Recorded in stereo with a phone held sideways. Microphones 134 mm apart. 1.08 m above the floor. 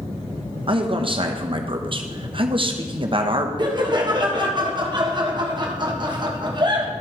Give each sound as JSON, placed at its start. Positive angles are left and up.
{"t": 0.7, "sound": "a man speaking", "side_deg": -40, "distance_m": 0.8}
{"t": 3.6, "sound": "laughter", "side_deg": -35, "distance_m": 1.4}